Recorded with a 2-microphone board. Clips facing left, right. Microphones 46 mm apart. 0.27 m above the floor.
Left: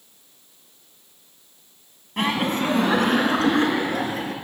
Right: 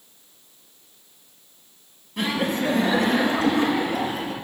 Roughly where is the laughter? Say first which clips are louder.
Left 1 dB; left.